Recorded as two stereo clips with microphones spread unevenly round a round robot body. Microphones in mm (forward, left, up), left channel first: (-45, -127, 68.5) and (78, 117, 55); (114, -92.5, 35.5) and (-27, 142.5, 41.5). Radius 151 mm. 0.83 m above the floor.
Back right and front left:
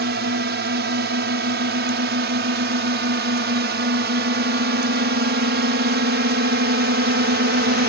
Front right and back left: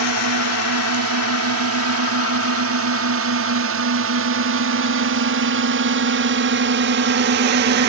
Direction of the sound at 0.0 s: 110° left.